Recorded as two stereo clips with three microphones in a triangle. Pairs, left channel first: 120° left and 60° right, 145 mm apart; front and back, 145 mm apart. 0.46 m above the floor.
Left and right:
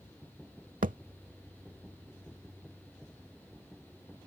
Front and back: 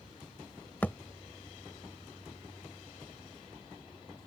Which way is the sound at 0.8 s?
75° right.